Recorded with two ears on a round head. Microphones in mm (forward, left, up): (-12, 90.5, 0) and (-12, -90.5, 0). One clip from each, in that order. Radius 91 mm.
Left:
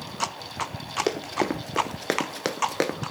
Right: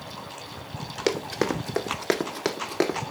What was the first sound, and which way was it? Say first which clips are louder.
Running footsteps: right 3 dB; 10° right (ahead or behind).